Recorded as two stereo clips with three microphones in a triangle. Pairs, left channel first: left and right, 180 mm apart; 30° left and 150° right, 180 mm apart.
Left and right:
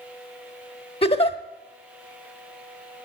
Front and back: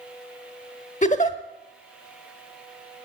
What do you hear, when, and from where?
1.0 s a giggle: 50° left, 1.0 m